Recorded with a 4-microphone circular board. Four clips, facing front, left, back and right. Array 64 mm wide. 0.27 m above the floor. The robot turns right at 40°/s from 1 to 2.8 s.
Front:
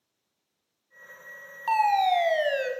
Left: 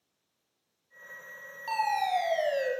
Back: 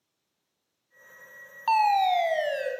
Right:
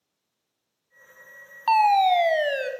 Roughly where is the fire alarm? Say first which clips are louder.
Right 10 dB, even; right.